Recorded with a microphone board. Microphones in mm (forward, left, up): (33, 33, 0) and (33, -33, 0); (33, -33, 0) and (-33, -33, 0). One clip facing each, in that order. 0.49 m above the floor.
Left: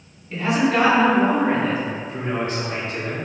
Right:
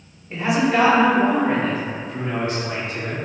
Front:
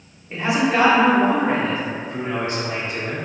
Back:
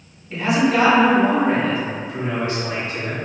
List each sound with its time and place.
0.3 s a man speaking: 50° right, 0.9 m; by 3.2 s 55° left, 1.6 m